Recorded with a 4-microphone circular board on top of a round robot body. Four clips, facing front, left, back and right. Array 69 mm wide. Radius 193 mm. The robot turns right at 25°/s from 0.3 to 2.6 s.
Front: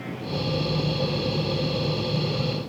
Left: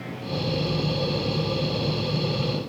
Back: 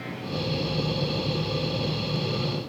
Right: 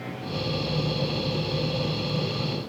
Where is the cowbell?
I don't hear a cowbell.